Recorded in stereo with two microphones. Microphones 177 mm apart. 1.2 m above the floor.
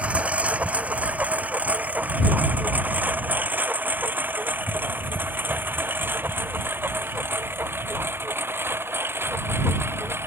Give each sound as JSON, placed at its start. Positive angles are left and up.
{"t": 0.0, "sound": "a lawn mower", "side_deg": -10}